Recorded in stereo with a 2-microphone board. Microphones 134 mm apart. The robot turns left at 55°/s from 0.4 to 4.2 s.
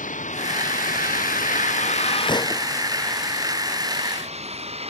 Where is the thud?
35° left (ahead or behind); by 2.6 s 15° left (ahead or behind).